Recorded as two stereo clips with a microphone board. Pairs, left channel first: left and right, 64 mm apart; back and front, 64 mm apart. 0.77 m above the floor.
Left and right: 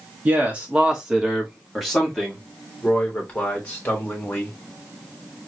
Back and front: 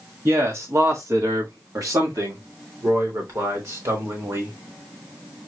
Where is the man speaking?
30° right, 1.5 m; by 4.5 s 30° left, 3 m.